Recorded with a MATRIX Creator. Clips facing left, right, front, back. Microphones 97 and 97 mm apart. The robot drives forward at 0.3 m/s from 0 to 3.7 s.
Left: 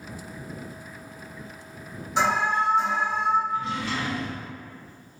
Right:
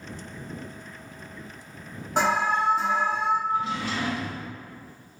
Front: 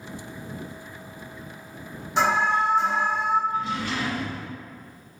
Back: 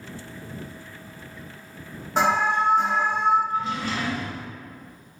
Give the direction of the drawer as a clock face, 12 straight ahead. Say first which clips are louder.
Right 1 dB, back 1 dB; 4 o'clock.